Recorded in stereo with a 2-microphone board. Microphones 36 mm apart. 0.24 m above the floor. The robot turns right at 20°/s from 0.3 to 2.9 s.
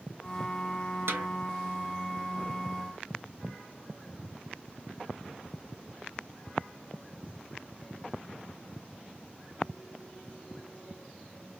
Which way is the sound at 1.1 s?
80° right.